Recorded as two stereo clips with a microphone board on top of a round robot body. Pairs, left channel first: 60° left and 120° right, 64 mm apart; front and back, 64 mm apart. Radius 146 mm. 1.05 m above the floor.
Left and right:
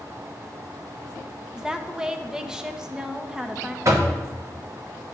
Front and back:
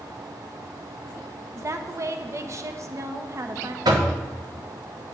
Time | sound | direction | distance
1.6 | a woman speaking | 165° left | 0.8 m
3.9 | knocking | 165° right | 0.9 m